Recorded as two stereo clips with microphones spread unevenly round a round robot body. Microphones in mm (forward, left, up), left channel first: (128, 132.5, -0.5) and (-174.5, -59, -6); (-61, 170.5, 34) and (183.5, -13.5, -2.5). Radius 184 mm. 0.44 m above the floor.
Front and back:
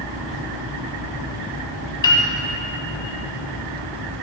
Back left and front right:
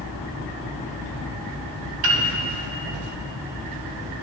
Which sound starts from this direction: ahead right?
A piano, at 2.0 s.